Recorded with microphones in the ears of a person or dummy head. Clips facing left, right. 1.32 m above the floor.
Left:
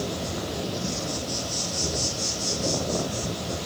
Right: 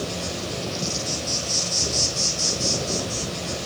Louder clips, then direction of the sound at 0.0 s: Even; 70° right (ahead or behind).